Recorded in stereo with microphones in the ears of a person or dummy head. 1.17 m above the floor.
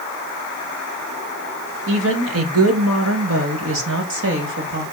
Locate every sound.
1.9 s a woman speaking: 70° right (ahead or behind), 1.9 m; by 4.8 s 55° right (ahead or behind), 2 m